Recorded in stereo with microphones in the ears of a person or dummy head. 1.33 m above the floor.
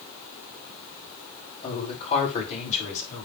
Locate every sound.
1.6 s a woman speaking: 40° left (ahead or behind), 5.5 m; by 3.3 s 50° left (ahead or behind), 5.5 m